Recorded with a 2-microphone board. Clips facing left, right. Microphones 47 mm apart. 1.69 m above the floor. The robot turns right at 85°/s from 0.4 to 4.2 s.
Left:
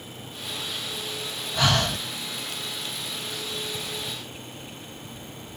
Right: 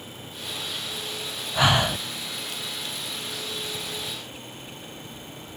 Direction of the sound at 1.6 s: 20° right (ahead or behind).